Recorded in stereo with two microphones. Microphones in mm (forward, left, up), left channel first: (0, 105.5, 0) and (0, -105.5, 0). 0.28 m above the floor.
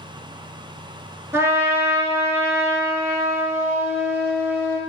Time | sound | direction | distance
1.3 | a trumpet | 10° right (ahead or behind) | 0.5 m